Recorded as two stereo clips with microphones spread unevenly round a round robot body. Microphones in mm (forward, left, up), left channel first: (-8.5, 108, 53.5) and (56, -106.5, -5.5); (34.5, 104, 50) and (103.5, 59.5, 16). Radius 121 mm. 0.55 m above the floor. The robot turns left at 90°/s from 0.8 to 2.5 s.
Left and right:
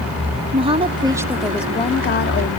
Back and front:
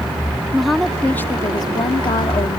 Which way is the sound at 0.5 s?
90° right.